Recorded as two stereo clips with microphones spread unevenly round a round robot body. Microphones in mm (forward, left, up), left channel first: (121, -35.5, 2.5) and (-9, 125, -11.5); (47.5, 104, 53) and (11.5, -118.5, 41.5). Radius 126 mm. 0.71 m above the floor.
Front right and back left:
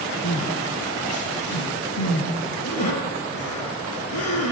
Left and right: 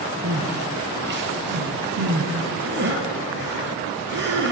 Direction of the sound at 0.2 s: 60° right.